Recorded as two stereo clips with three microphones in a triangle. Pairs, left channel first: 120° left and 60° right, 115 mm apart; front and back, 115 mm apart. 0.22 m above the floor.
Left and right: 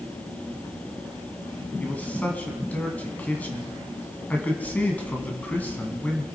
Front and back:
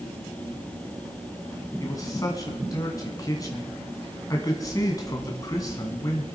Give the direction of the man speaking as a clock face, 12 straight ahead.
10 o'clock.